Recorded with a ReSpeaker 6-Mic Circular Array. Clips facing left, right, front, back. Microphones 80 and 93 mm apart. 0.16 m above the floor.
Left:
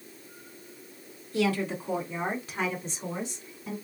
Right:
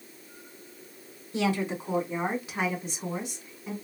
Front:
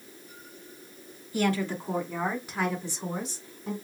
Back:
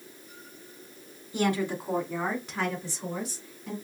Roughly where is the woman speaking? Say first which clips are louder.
Even, even; behind right.